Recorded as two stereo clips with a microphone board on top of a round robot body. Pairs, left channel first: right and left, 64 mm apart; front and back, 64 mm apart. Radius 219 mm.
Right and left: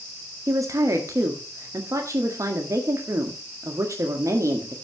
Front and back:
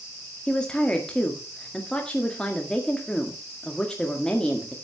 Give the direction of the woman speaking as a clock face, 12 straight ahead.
10 o'clock.